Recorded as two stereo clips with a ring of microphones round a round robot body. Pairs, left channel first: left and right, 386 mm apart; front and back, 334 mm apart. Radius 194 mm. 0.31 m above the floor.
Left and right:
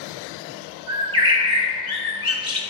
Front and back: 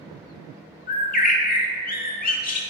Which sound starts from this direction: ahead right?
A bird, at 0.9 s.